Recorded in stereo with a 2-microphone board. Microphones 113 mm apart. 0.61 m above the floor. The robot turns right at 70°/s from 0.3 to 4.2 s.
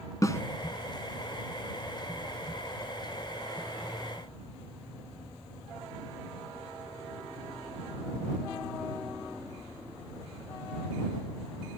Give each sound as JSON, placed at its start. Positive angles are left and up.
{"t": 0.2, "sound": "a snare drum", "side_deg": 30}